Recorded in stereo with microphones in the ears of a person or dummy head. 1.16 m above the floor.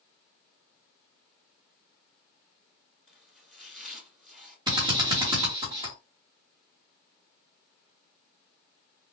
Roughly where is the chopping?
Centre.